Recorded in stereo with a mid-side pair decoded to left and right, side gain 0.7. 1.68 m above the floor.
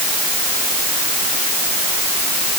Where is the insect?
No insect in this recording.